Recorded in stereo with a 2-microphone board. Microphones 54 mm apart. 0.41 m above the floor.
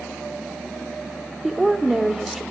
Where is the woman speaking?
5° right (ahead or behind), 0.8 m.